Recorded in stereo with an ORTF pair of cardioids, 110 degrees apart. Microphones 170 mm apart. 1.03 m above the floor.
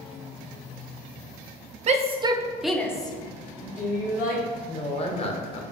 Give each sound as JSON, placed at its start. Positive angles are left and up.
{"t": 1.9, "sound": "a shout", "azimuth_deg": -45, "distance_m": 0.7}
{"t": 4.7, "sound": "a woman speaking", "azimuth_deg": 40, "distance_m": 0.8}